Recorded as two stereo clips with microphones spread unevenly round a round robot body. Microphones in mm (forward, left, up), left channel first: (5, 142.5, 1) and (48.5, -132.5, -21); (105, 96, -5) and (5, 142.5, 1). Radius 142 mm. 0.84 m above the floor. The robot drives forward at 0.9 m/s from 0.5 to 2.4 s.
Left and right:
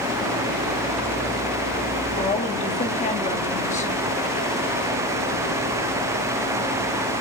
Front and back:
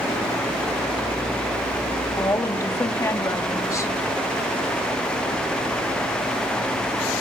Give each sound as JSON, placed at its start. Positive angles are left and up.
{"t": 2.2, "sound": "a woman speaking", "azimuth_deg": 30, "distance_m": 1.6}